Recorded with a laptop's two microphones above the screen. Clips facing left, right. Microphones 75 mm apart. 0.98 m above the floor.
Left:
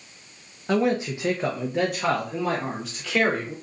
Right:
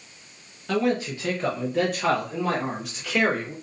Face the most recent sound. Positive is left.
turn(degrees=0)  # may be behind; listen again after turning